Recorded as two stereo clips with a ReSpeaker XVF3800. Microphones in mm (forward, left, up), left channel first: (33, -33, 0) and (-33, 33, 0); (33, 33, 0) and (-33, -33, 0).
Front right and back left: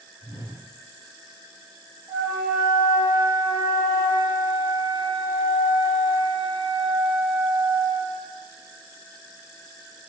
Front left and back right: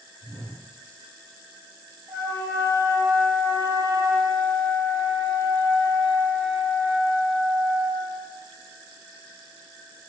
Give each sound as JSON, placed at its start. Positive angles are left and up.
{"t": 0.2, "sound": "a whoosh", "azimuth_deg": -150, "distance_m": 1.2}
{"t": 2.1, "sound": "a flute", "azimuth_deg": 145, "distance_m": 1.6}